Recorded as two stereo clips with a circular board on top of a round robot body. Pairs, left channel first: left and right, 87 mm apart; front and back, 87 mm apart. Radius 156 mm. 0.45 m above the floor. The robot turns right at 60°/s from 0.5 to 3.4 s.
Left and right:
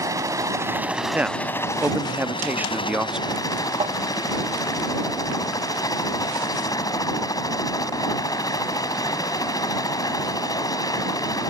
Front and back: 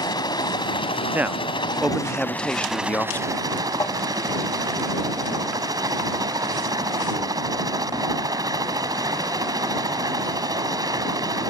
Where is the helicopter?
40° right; by 11.5 s 135° left.